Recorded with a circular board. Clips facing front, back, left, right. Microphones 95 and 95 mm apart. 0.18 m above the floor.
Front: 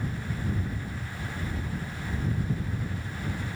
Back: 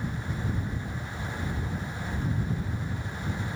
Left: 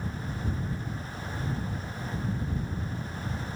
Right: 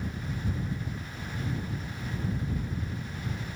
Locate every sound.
Only background noise.